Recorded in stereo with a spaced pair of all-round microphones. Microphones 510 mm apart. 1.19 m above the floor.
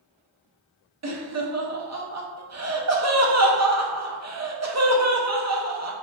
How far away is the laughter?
About 0.5 m.